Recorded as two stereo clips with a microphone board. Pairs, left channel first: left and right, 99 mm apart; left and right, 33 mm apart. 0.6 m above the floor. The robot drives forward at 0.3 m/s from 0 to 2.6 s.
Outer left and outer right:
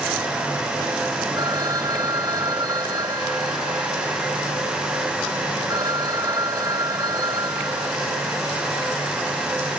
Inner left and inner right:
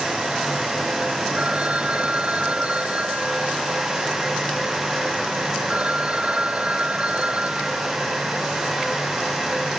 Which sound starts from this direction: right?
A phone ringing, at 1.4 s.